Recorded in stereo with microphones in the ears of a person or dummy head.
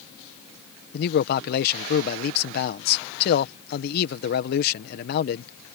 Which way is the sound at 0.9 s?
55° left (ahead or behind).